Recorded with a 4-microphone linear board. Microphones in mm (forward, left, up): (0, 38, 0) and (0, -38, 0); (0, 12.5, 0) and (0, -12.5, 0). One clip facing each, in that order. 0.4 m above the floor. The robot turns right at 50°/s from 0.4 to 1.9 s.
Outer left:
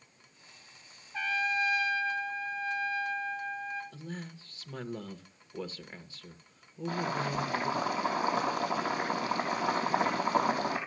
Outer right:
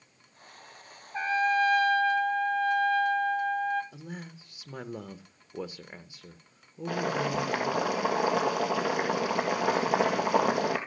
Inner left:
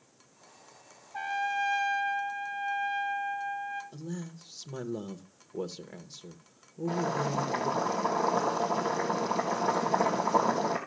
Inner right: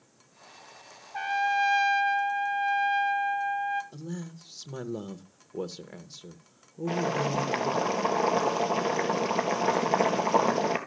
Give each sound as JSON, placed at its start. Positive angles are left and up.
{"t": 1.1, "sound": "a trumpet", "azimuth_deg": -150, "distance_m": 1.8}
{"t": 3.9, "sound": "a man speaking", "side_deg": -15, "distance_m": 0.7}
{"t": 6.9, "sound": "boiling", "side_deg": -90, "distance_m": 2.5}